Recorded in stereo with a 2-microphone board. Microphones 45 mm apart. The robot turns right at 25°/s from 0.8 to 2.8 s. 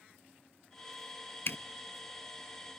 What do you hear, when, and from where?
1.5 s a zipper: 60° left (ahead or behind), 0.5 m